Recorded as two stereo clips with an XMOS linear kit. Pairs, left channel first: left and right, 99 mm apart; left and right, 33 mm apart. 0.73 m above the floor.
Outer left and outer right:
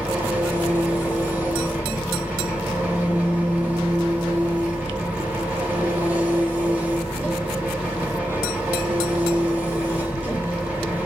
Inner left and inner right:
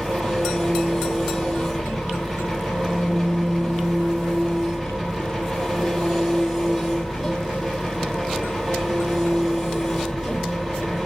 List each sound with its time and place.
0.0 s an engine running: 10° right (ahead or behind), 3.5 m